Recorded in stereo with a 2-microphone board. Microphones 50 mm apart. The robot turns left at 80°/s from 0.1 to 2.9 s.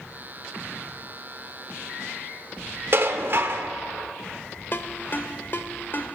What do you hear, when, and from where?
2.9 s dishes clattering: 50° right (ahead or behind), 0.9 m
4.7 s a ringtone: 45° left (ahead or behind), 0.7 m